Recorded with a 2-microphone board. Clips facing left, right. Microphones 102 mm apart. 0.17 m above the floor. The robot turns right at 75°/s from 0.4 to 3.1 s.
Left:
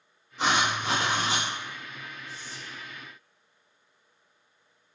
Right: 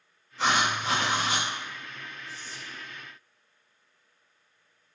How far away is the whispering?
About 1.1 m.